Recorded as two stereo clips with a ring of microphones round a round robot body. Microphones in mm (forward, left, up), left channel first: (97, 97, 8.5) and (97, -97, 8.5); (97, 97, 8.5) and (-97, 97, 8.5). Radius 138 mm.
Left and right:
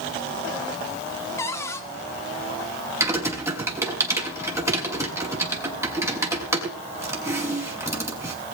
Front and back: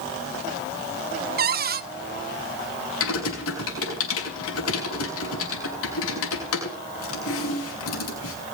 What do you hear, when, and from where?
1.4 s a cupboard door: 165° left, 1.0 m
3.0 s typing on a keyboard: 15° right, 6 m